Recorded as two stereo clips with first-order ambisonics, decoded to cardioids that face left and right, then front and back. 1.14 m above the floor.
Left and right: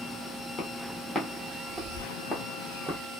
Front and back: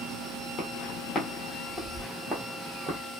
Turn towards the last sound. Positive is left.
turn(degrees=-160)